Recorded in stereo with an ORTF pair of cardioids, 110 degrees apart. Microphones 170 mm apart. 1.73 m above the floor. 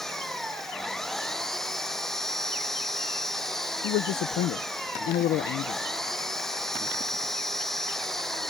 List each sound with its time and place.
0.0 s an engine running: 5° left
3.8 s a man speaking: 70° left